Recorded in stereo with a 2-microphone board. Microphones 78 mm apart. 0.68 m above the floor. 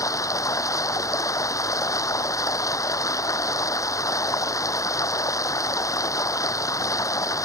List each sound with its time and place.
0.0 s running water: 45° left (ahead or behind)